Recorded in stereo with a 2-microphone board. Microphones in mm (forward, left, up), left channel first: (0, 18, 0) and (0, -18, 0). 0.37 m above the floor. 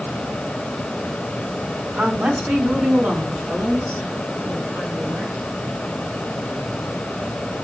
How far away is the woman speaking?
About 4 m.